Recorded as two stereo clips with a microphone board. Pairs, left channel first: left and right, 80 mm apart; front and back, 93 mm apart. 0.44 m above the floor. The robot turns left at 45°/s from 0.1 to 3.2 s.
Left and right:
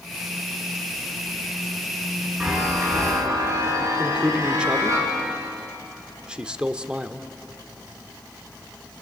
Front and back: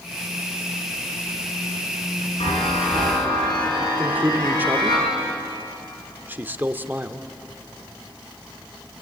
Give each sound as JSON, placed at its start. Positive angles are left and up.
{"t": 2.4, "sound": "a chime", "azimuth_deg": -5, "distance_m": 6.5}
{"t": 4.0, "sound": "a man speaking", "azimuth_deg": -150, "distance_m": 0.9}